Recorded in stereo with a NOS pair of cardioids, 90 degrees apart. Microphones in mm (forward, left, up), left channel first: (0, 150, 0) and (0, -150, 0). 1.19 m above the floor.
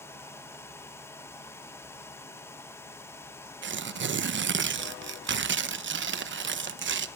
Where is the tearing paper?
40° right, 1.0 m.